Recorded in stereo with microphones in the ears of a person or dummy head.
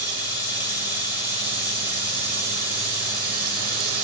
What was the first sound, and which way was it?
Running water, 20° left (ahead or behind).